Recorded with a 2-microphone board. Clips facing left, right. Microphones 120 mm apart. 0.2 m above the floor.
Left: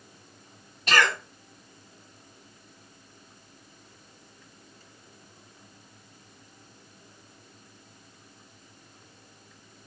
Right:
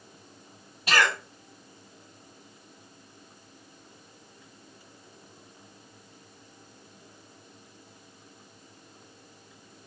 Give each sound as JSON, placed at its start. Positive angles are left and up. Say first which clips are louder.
{"t": 0.9, "sound": "a cough", "louder": "left 1 dB", "side_deg": -10, "distance_m": 1.3}